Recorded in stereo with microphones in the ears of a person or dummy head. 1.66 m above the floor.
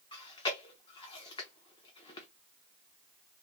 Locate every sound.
0.1 s chewing: 20° left (ahead or behind), 0.7 m